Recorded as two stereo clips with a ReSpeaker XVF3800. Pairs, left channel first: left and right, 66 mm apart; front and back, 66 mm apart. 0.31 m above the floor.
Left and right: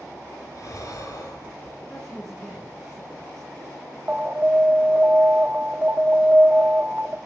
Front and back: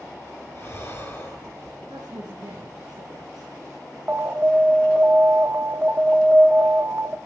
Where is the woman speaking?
170° left, 4 m.